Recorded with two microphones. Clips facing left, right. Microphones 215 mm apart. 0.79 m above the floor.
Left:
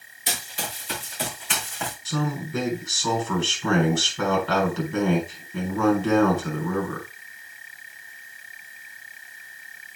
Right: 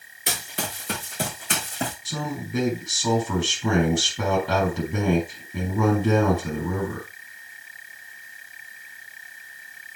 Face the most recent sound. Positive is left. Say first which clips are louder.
# left 3 dB
turn(degrees=-15)  # may be behind; listen again after turning